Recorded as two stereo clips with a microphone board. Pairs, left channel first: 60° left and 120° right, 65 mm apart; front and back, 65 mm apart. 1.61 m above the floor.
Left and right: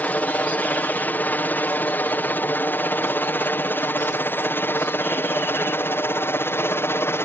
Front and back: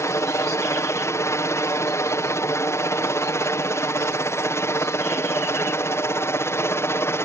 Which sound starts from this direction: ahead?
A helicopter, at 0.0 s.